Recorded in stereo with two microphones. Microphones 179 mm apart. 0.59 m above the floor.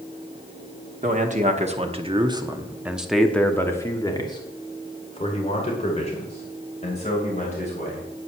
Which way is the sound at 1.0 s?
45° right (ahead or behind).